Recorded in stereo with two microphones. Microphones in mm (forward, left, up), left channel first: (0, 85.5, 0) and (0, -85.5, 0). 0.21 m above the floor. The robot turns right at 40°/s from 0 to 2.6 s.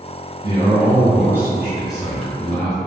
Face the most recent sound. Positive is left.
turn(degrees=10)  # may be behind; listen again after turning